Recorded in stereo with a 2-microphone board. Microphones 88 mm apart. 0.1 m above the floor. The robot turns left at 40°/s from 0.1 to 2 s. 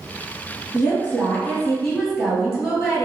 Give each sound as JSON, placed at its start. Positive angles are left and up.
{"t": 0.7, "sound": "a woman speaking", "azimuth_deg": 45, "distance_m": 1.6}